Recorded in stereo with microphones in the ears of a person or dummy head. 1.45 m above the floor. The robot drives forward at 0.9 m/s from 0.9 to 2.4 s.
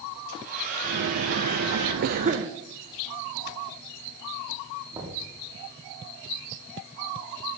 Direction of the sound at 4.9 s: 20° right (ahead or behind).